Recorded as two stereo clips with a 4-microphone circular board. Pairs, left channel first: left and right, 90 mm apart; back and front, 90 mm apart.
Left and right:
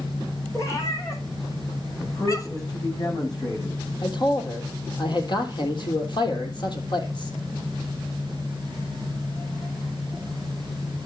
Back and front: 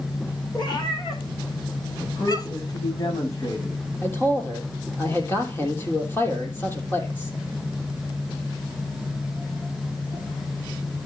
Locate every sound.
0.5 s a cat meowing: 145° left, 3.5 m; by 2.7 s 135° left, 1.7 m
2.0 s a man speaking: 135° left, 8.5 m
4.0 s a man speaking: 115° left, 3 m